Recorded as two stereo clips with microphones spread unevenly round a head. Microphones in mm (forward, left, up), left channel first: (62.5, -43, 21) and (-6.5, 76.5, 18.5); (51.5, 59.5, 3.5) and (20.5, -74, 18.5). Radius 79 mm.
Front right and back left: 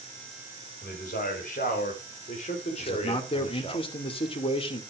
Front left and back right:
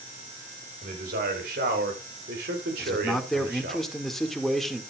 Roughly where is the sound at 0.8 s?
Right.